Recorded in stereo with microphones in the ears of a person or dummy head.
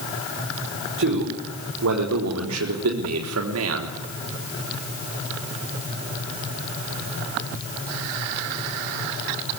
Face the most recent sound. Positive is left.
turn(degrees=-75)  # may be behind; listen again after turning